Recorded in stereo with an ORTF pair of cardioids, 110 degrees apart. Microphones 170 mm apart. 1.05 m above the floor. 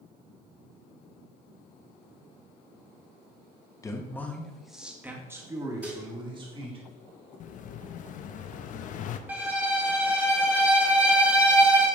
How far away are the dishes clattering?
About 1.5 m.